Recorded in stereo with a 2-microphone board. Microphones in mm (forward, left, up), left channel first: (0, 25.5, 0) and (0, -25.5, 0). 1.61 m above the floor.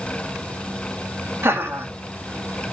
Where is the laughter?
50° right (ahead or behind), 3.5 m.